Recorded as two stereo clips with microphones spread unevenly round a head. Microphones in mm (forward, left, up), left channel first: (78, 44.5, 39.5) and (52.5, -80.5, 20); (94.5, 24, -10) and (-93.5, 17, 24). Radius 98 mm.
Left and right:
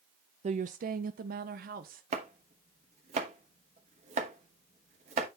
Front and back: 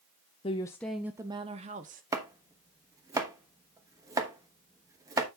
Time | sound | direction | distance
0.4 | a woman speaking | 60° right | 0.6 m
2.1 | chopping | 130° right | 1.1 m